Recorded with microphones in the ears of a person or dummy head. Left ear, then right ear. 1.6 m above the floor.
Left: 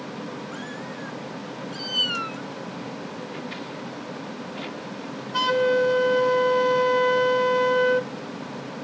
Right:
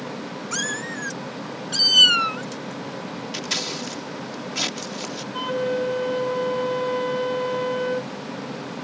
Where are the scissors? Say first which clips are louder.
Right 8 dB; 85° right.